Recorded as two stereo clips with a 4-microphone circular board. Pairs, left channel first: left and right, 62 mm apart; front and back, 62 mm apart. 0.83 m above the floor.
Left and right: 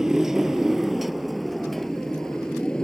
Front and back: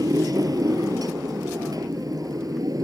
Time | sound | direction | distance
0.0 | a motorcycle | 170° right | ?